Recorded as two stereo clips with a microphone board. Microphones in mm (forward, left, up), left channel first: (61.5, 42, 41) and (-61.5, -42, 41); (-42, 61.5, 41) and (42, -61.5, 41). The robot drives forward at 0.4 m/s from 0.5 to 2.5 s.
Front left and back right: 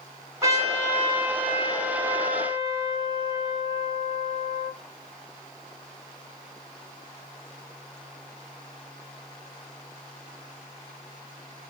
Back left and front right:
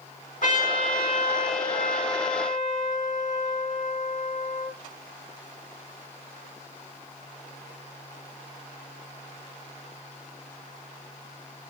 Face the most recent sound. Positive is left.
turn(degrees=155)